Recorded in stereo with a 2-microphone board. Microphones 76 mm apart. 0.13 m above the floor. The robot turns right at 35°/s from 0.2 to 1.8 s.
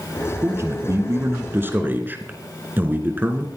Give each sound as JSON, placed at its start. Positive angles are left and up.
{"t": 0.4, "sound": "a man speaking", "azimuth_deg": -95, "distance_m": 2.0}